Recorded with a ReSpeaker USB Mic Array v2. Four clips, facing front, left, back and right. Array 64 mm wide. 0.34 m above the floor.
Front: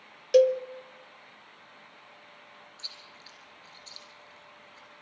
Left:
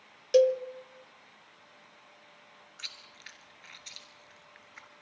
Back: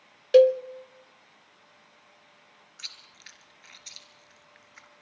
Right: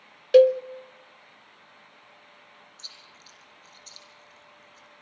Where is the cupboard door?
I don't hear a cupboard door.